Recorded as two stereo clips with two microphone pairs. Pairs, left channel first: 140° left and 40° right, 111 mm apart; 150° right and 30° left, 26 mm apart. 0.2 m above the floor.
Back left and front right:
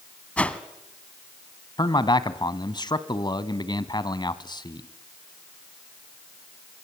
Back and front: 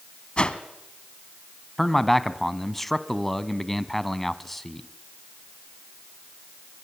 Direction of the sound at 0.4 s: 150° right.